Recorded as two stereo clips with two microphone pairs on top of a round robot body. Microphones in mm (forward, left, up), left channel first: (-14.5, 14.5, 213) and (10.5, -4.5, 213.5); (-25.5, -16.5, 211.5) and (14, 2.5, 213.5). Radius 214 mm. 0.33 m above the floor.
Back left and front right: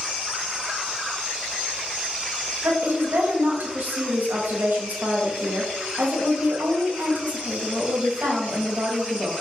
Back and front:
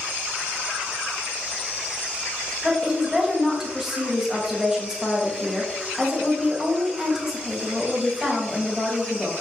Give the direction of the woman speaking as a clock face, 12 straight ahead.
2 o'clock.